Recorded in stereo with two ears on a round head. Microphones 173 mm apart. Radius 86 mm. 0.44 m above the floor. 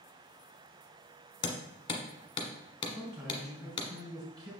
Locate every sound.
1.4 s hammering: 25° left (ahead or behind), 1.3 m
3.0 s a man speaking: 20° right (ahead or behind), 3.5 m